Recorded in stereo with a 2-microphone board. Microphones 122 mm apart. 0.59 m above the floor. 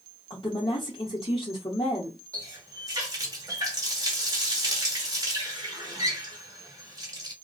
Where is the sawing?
No sawing in this recording.